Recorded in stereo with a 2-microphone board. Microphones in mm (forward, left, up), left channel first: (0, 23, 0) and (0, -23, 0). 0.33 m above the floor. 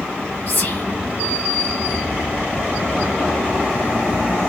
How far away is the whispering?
About 2 m.